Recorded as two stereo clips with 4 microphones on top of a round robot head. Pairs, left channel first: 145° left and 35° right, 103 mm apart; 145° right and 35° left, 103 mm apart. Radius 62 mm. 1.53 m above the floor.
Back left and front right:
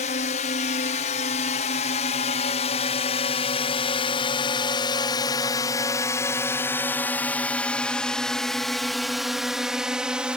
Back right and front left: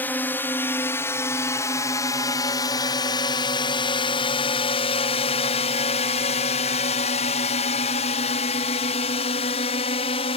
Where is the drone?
140° left; by 10.4 s 115° right.